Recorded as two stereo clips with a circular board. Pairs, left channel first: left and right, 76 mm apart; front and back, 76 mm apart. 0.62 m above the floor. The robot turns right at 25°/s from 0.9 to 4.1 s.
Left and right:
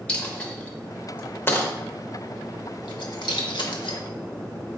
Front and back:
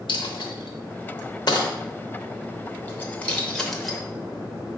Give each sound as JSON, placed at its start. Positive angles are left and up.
{"t": 0.1, "sound": "a dropped coin", "azimuth_deg": 15, "distance_m": 0.7}